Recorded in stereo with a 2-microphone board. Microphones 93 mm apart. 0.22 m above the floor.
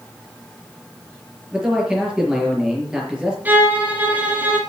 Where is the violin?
20° right (ahead or behind), 2.5 m.